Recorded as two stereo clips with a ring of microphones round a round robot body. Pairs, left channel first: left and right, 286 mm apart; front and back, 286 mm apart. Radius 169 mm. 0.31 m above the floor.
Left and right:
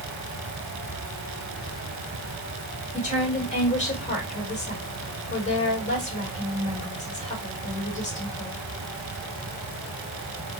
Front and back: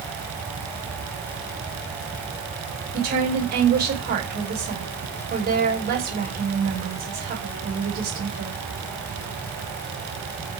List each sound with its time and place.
2.9 s a woman speaking: 145° left, 1.8 m